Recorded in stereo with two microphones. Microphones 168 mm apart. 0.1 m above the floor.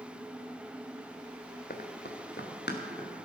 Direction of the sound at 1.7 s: 65° left (ahead or behind).